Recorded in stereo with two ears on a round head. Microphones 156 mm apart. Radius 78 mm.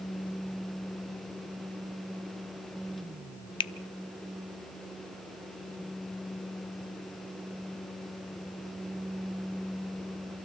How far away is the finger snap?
About 0.5 m.